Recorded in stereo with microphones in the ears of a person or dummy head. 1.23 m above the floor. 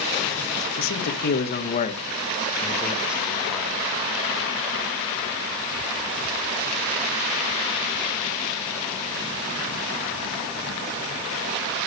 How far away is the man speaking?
About 1.4 m.